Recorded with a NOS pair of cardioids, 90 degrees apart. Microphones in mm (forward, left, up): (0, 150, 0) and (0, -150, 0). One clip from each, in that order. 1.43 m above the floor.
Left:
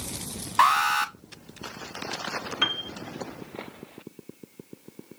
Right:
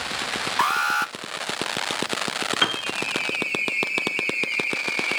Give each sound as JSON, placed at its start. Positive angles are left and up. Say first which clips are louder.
{"t": 0.6, "sound": "an alarm", "louder": "left 2 dB", "azimuth_deg": 5, "distance_m": 0.9}
{"t": 2.6, "sound": "a piano", "louder": "right 2 dB", "azimuth_deg": -30, "distance_m": 0.6}